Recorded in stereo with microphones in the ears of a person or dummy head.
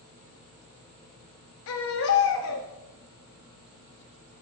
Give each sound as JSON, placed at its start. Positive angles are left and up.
{"t": 1.7, "sound": "a baby crying", "side_deg": 65, "distance_m": 1.4}